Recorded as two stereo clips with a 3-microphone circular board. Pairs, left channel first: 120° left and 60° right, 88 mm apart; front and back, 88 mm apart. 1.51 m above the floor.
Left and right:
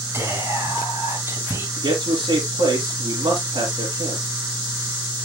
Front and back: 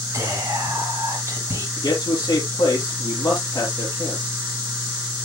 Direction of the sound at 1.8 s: 45° right.